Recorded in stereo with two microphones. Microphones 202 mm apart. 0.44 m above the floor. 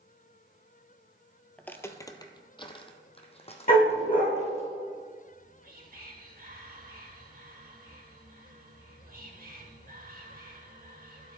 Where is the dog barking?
45° left (ahead or behind), 3.5 m.